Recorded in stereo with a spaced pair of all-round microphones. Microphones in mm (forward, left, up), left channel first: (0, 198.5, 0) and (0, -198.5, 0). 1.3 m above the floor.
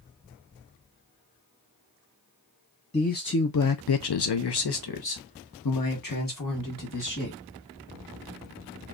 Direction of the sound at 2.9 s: 15° left (ahead or behind).